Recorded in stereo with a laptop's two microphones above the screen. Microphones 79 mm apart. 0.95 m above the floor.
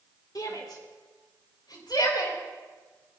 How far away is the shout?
About 2.5 m.